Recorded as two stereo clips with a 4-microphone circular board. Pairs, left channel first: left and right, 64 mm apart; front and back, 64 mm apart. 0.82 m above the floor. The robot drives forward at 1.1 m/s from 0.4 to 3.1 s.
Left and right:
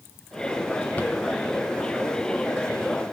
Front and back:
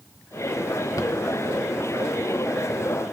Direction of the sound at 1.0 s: 30° left.